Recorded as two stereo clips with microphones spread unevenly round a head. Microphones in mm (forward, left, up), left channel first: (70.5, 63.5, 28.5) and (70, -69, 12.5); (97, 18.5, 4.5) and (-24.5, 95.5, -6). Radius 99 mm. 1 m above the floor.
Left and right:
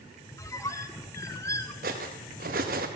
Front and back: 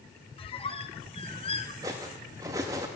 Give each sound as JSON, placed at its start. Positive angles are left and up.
{"t": 0.4, "sound": "a squeak", "azimuth_deg": 20, "distance_m": 0.8}
{"t": 1.8, "sound": "cutlery clinking", "azimuth_deg": -135, "distance_m": 0.7}